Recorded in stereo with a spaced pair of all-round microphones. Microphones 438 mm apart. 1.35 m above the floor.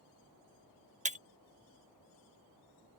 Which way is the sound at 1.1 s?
15° right (ahead or behind).